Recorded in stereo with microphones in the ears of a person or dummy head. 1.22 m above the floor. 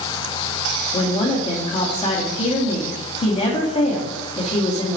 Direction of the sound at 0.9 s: 35° left (ahead or behind).